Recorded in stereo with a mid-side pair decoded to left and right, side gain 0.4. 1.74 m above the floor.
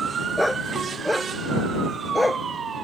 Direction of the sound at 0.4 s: 5° left.